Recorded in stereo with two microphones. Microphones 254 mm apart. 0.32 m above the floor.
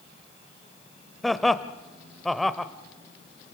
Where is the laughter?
Centre (ahead or behind), 0.9 m.